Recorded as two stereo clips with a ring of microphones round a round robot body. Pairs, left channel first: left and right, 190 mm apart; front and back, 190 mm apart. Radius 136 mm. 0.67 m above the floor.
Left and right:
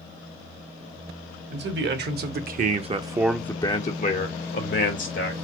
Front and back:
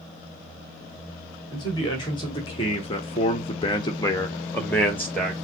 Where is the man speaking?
75° right, 1.3 m; by 5.3 s 85° left, 1.4 m.